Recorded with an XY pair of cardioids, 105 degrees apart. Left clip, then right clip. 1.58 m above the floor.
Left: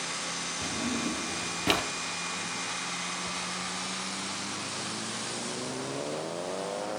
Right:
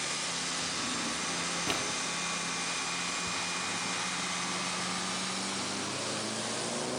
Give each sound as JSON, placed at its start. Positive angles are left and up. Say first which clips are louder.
{"t": 0.6, "sound": "a drawer", "louder": "left 1 dB", "azimuth_deg": 60, "distance_m": 2.5}
{"t": 3.3, "sound": "ticking", "louder": "even", "azimuth_deg": -10, "distance_m": 3.0}